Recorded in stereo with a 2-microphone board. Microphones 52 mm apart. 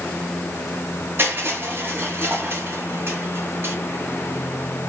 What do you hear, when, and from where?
1.2 s crushing: 45° right (ahead or behind), 2 m